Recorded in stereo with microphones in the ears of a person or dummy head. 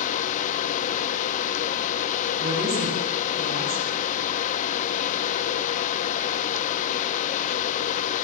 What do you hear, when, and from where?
0.0 s a fan: 45° left (ahead or behind), 1.1 m
2.4 s a woman speaking: 55° right (ahead or behind), 8.5 m